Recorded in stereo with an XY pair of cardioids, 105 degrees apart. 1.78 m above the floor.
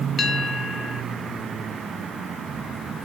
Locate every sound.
0.2 s a bell: 40° left, 1.0 m